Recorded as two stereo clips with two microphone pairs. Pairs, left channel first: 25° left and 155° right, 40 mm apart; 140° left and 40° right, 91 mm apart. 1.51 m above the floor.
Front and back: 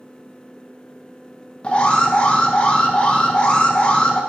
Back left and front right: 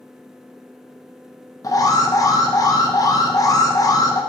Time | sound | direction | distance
1.6 | an alarm | 90° left | 0.6 m